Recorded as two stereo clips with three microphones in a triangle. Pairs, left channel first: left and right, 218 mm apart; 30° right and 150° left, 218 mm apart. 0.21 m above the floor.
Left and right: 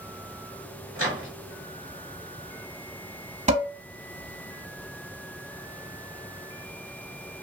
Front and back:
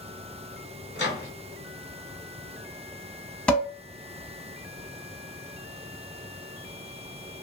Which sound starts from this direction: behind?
A microwave, at 0.9 s.